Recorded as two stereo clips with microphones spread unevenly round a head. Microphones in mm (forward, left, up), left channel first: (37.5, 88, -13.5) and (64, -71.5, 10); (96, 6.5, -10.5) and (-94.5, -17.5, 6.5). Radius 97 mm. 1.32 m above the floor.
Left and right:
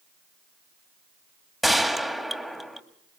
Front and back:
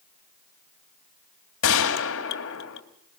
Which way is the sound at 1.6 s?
5° left.